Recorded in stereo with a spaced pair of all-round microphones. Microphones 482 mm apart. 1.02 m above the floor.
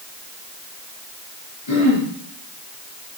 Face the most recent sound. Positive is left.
turn(degrees=70)  # may be behind; listen again after turning